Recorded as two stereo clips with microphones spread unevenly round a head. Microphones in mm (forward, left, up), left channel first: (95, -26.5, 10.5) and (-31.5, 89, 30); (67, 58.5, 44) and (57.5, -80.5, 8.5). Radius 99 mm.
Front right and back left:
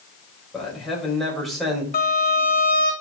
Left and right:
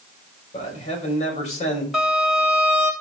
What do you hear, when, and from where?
0.5 s a man speaking: 45° left, 5 m
1.9 s a violin: 5° right, 3 m